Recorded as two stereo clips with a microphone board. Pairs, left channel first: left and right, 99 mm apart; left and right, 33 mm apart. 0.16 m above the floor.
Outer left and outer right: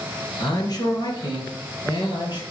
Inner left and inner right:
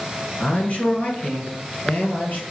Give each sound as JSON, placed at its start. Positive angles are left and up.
{"t": 0.4, "sound": "a man speaking", "side_deg": 40, "distance_m": 2.0}